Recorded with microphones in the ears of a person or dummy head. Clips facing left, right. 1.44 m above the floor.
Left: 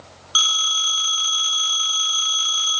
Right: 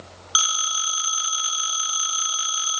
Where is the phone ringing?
20° right (ahead or behind), 0.6 m.